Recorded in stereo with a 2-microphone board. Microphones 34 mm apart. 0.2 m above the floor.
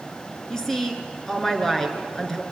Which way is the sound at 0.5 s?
10° left (ahead or behind).